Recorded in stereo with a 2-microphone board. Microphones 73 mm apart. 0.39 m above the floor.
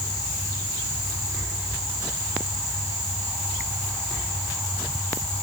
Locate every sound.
Only background noise.